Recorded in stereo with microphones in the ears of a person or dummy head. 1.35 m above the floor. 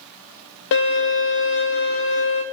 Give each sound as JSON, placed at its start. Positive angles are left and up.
{"t": 0.7, "sound": "a violin", "side_deg": 65, "distance_m": 1.2}